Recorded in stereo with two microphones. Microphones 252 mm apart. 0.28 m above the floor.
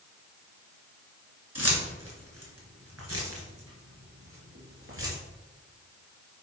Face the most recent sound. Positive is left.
turn(degrees=-55)  # may be behind; listen again after turning